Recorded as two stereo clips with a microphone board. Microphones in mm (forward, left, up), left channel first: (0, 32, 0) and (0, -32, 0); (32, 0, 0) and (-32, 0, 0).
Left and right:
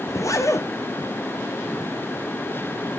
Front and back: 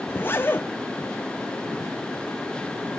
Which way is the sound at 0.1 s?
55° left.